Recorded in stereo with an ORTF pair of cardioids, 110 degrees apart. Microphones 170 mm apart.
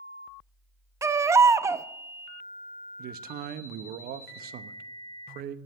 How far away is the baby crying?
About 0.6 m.